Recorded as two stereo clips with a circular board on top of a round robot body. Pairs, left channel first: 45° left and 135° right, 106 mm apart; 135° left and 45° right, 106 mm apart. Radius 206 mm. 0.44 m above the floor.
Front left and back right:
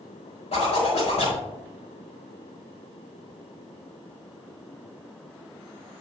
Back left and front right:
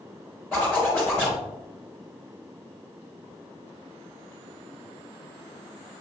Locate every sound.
0.5 s a zipper: 65° left, 4 m